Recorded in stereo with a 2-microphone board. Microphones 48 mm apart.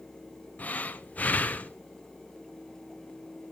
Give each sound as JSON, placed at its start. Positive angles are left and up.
{"t": 0.6, "sound": "breathing", "side_deg": 35, "distance_m": 0.5}